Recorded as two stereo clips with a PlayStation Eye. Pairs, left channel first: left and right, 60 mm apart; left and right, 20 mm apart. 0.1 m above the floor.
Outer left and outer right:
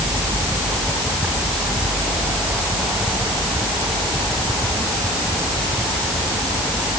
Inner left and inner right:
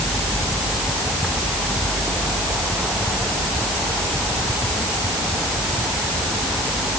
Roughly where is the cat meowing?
No cat meowing in this recording.